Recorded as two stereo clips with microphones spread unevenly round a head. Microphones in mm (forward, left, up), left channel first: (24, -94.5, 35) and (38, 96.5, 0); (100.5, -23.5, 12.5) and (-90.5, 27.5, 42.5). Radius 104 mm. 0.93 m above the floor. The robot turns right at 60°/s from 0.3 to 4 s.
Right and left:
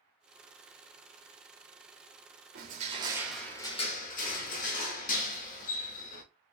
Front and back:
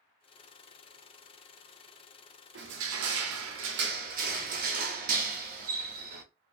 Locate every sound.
2.5 s crushing: 125° left, 0.6 m; by 6.2 s 145° right, 0.6 m